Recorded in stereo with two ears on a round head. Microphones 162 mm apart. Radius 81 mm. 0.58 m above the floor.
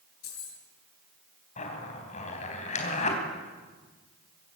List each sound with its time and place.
0.2 s keys jangling: 80° left, 7.5 m
1.6 s a zipper: 40° left (ahead or behind), 3.5 m